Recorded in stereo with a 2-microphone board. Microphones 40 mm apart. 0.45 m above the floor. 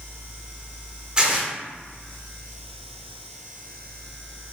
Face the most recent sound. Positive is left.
turn(degrees=-25)  # may be behind; listen again after turning